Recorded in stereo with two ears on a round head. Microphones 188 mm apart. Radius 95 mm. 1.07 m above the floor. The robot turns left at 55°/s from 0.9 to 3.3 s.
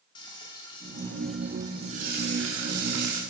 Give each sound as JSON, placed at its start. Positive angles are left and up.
{"t": 0.1, "sound": "frying", "azimuth_deg": 20, "distance_m": 2.0}